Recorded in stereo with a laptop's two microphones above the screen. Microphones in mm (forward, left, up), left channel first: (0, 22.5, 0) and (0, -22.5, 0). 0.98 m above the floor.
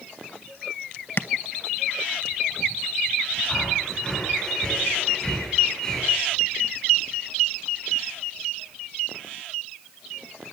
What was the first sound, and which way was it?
Tapping, 45° left (ahead or behind).